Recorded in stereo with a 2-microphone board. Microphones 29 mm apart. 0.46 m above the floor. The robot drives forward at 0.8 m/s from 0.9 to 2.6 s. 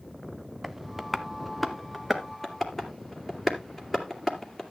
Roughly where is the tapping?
Centre.